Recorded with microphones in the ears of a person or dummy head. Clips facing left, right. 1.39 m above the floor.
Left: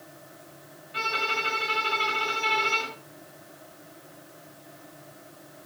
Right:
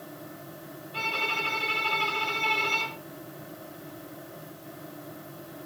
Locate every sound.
0.9 s a violin: 20° left (ahead or behind), 4.5 m